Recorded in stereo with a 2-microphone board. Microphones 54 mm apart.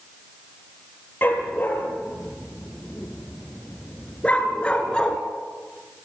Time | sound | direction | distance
1.2 | a dog barking | 40° left (ahead or behind) | 4 m